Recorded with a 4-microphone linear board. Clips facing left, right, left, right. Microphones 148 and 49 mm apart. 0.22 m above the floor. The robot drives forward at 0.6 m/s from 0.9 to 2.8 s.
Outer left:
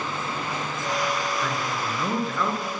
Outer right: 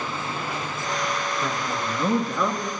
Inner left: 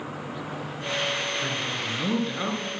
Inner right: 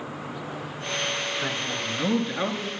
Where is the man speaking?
15° right (ahead or behind), 3.5 m.